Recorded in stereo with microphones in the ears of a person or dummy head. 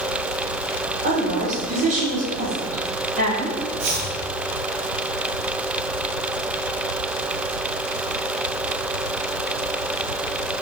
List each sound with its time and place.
1.0 s a woman speaking: 55° right (ahead or behind), 3.5 m; by 3.6 s 35° right (ahead or behind), 3.5 m
3.8 s chopping: 70° right (ahead or behind), 3.5 m